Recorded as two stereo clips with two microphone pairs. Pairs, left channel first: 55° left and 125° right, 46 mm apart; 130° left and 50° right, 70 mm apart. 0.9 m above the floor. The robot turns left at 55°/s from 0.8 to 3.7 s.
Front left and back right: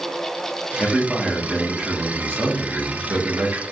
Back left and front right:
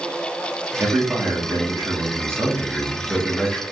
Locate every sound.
0.8 s a man speaking: 10° right, 0.8 m; by 3.6 s 160° right, 0.8 m